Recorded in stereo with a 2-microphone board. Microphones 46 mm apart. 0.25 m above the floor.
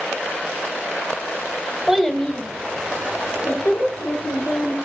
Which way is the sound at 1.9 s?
10° right (ahead or behind).